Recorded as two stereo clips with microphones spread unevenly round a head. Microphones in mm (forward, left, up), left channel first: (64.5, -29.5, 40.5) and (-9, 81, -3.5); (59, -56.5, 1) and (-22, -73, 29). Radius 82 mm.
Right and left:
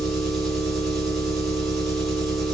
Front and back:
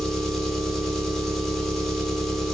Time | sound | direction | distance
0.0 | an engine running | 105° right | 0.8 m